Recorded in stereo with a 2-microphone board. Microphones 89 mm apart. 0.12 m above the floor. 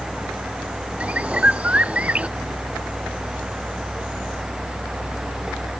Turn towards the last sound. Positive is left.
turn(degrees=-15)  # may be behind; listen again after turning